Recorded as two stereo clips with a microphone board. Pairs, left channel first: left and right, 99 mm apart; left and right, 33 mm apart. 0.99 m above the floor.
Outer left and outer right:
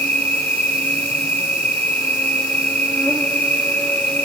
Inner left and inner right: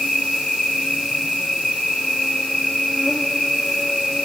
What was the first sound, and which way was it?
An insect, 15° left (ahead or behind).